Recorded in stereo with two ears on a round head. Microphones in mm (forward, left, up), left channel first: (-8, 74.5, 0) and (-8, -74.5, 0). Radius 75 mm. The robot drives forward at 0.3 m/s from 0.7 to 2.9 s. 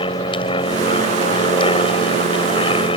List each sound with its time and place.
0.0 s an aircraft: 30° left (ahead or behind)